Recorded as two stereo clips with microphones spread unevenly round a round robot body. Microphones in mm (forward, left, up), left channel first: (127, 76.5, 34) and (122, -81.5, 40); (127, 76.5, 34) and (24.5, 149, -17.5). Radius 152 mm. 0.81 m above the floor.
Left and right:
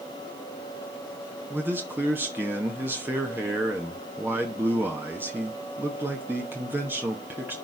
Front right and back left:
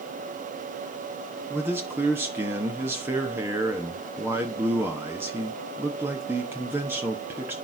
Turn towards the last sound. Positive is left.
turn(degrees=-170)